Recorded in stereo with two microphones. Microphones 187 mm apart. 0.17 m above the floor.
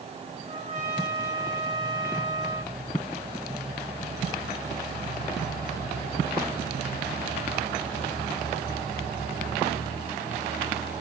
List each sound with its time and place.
0.5 s a trumpet: 45° right (ahead or behind), 7.5 m